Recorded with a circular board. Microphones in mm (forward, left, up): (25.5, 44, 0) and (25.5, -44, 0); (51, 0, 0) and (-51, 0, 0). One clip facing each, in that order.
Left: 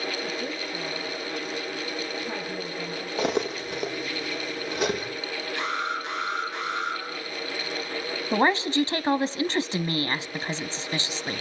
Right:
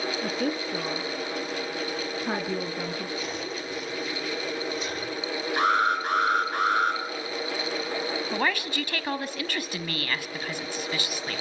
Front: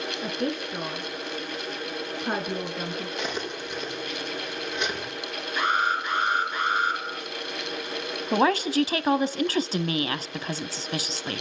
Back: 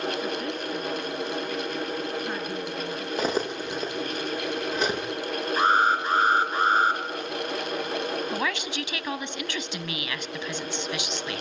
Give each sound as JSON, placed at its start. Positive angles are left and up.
{"t": 0.2, "sound": "a woman speaking", "azimuth_deg": -55, "distance_m": 3.0}
{"t": 3.2, "sound": "cutlery clinking", "azimuth_deg": 125, "distance_m": 6.0}
{"t": 5.6, "sound": "an alarm", "azimuth_deg": -125, "distance_m": 4.5}
{"t": 8.3, "sound": "a woman speaking", "azimuth_deg": 35, "distance_m": 1.4}